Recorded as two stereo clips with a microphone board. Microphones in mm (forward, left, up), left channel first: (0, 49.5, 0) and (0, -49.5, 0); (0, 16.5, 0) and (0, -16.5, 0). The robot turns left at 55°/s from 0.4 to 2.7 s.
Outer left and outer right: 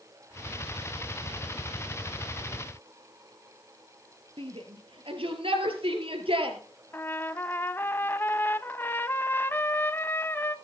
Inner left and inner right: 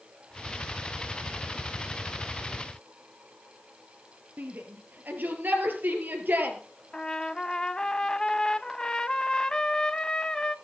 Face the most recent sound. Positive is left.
turn(degrees=20)  # may be behind; listen again after turning